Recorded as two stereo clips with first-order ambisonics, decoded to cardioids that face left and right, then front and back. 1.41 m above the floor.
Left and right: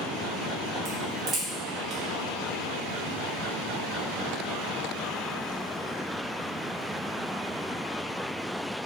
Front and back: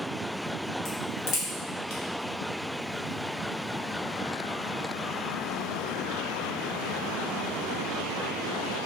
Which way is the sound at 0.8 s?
25° right.